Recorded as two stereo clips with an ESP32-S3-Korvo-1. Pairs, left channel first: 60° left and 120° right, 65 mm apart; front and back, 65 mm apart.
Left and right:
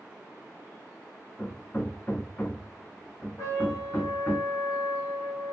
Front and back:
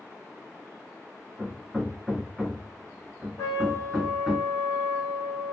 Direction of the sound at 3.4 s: 30° left.